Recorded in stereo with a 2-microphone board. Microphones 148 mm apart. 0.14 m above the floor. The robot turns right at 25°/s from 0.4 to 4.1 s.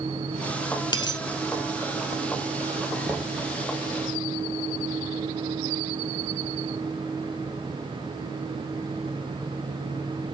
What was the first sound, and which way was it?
A dropped coin, 30° left (ahead or behind).